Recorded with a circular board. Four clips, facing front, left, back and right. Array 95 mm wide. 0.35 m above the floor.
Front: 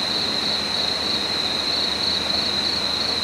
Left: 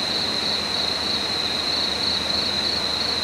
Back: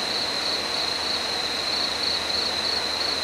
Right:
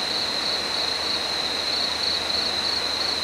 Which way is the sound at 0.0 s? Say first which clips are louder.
Left 2 dB, front 2 dB; 25° left.